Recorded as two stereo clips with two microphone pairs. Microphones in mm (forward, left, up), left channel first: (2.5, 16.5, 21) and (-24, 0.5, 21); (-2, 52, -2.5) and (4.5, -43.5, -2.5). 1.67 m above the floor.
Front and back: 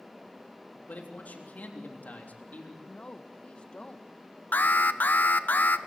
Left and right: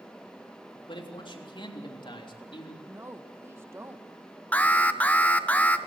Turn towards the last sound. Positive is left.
turn(degrees=20)